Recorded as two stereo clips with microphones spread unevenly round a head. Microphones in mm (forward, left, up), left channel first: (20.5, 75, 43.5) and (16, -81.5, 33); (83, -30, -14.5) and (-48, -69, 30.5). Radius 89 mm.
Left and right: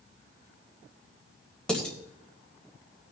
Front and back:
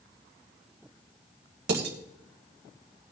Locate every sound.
1.7 s dishes clattering: 175° left, 3 m